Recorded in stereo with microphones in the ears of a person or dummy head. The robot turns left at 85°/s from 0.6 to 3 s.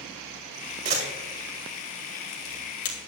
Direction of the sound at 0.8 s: 35° right (ahead or behind).